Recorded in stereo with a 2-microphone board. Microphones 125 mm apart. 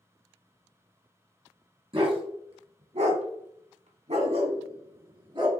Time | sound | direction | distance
1.9 | a dog barking | 45° right (ahead or behind) | 1.3 m